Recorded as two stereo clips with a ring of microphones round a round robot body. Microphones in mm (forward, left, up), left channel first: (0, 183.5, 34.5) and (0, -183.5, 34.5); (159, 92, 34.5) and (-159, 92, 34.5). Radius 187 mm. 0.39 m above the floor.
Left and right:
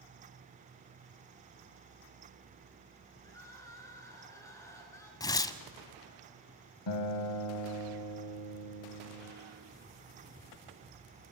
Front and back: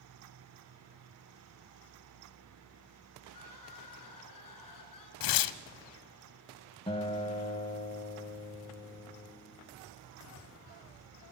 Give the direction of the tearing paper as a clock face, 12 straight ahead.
12 o'clock.